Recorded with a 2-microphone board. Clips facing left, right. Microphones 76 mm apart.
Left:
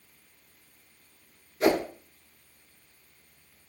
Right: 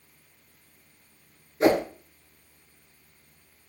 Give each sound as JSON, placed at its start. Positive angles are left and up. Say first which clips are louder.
{"t": 1.6, "sound": "a whoosh", "louder": "right 3 dB", "side_deg": -30, "distance_m": 0.9}